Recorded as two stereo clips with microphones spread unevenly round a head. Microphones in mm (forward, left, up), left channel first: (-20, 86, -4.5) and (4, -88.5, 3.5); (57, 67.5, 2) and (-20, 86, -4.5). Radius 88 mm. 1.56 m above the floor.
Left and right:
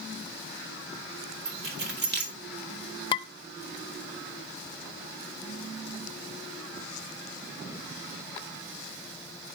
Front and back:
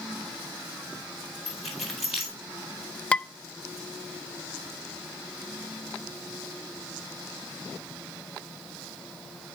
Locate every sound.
1.4 s keys jangling: 110° right, 2.5 m
3.1 s dishes clattering: 50° left, 0.6 m